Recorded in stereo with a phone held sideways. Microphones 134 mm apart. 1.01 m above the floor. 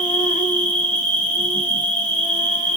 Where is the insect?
70° left (ahead or behind), 1.4 m.